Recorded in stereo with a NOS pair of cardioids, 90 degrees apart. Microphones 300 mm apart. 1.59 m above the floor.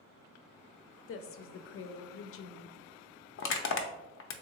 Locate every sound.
1.1 s a woman speaking: 45° left, 0.5 m
3.4 s crushing: 45° left, 0.5 m